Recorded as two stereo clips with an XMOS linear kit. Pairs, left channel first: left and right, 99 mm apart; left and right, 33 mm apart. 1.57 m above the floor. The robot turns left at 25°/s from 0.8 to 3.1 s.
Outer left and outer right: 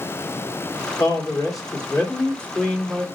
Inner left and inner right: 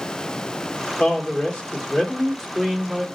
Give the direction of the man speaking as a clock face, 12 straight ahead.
10 o'clock.